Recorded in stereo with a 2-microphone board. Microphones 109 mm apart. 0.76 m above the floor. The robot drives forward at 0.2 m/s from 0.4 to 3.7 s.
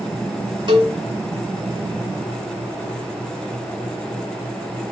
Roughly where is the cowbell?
Right.